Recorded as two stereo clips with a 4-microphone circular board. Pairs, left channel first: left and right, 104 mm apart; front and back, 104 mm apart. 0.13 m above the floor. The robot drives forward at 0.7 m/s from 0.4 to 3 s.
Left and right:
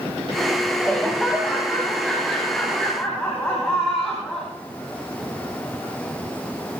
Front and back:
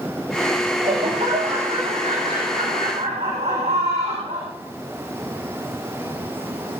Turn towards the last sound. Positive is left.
turn(degrees=175)